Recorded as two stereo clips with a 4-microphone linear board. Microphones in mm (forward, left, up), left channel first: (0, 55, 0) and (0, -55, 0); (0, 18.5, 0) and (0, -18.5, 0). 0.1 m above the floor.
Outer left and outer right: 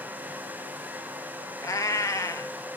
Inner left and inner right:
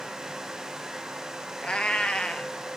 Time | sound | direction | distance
1.6 | a cat meowing | 30° left (ahead or behind) | 0.6 m